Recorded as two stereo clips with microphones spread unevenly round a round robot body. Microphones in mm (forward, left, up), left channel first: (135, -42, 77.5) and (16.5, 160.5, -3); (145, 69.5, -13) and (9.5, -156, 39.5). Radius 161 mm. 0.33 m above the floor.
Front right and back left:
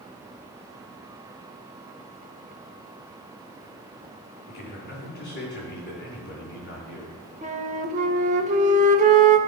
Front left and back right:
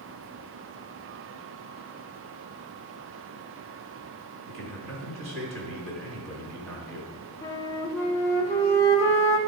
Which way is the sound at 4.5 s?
120° right.